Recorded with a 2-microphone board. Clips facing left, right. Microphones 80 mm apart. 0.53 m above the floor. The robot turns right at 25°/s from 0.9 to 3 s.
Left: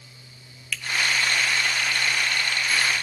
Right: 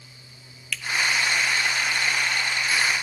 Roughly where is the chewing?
No chewing in this recording.